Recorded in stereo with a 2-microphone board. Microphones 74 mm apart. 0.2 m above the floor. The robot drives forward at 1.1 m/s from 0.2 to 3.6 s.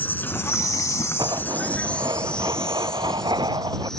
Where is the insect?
25° left (ahead or behind); by 4.0 s 5° left (ahead or behind).